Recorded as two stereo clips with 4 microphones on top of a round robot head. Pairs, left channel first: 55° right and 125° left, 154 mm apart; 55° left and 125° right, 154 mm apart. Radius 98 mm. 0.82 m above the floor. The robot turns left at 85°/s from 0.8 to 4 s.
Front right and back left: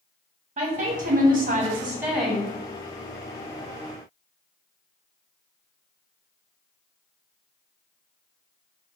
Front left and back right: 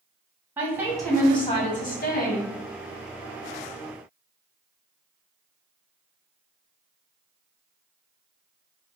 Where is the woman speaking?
160° left, 1.4 m; by 2.5 s 15° left, 1.4 m.